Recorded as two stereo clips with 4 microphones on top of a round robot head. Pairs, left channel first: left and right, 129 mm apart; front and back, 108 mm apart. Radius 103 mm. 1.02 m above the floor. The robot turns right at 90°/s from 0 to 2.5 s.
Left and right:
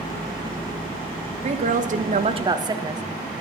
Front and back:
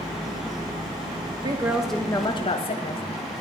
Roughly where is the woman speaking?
Behind right.